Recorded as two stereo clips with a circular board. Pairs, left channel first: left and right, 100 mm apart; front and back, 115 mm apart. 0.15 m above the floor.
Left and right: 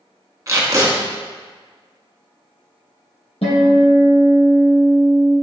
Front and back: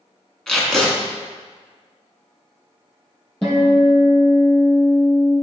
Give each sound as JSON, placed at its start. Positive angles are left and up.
{"t": 0.5, "sound": "tape being pulled", "azimuth_deg": -85, "distance_m": 0.8}
{"t": 3.4, "sound": "a guitar", "azimuth_deg": 85, "distance_m": 2.0}